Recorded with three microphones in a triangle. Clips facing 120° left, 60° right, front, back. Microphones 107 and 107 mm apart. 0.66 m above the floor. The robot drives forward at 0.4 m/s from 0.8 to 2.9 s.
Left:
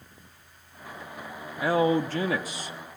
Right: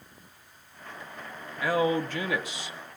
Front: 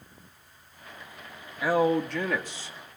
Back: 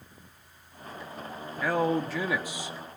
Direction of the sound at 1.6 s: 75° left.